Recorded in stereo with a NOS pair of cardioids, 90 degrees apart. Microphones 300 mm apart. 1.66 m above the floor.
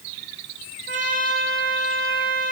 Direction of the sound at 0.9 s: 35° right.